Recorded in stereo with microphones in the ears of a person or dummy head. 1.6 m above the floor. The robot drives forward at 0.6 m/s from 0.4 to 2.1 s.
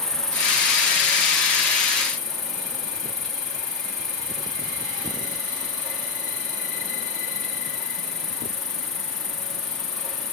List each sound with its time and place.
0.0 s an insect: 5° left (ahead or behind), 0.7 m; by 10.3 s centre (ahead or behind), 1.7 m